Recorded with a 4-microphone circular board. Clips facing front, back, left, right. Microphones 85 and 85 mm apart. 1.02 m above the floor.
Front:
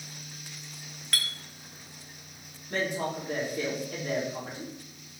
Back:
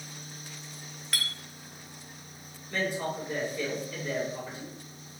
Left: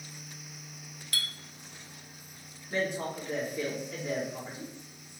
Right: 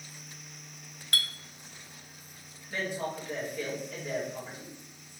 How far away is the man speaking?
About 2.5 m.